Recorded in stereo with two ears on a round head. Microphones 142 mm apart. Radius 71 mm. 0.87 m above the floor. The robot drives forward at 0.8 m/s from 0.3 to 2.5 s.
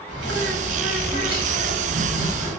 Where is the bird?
80° right, 3 m; by 2.5 s 55° right (ahead or behind), 3.5 m.